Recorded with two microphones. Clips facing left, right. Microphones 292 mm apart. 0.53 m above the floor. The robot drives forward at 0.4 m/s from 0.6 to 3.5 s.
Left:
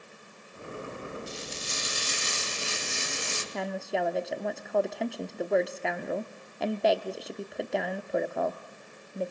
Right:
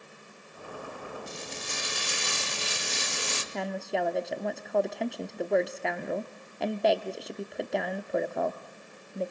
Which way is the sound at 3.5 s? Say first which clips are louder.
Even; centre (ahead or behind).